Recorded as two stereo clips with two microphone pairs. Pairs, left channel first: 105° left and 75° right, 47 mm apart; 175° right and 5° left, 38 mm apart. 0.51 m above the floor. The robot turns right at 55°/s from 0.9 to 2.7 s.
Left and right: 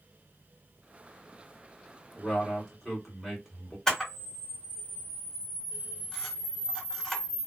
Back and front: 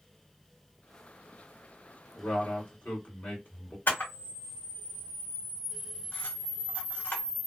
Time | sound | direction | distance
2.1 | a man speaking | 160° left | 1.5 m
3.9 | a camera shutter | straight behind | 1.2 m